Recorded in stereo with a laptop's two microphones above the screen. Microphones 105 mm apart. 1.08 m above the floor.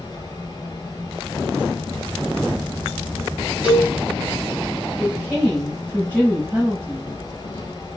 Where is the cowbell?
15° right (ahead or behind), 2.5 m.